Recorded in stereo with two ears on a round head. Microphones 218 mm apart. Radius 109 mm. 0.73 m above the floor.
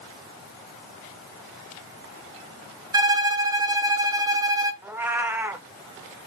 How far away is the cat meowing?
About 0.7 m.